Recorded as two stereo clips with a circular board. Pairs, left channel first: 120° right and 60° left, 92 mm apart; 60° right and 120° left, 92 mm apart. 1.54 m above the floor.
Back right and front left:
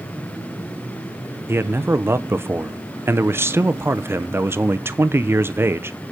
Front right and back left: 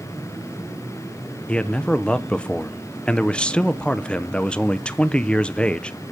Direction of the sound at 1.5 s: 15° left.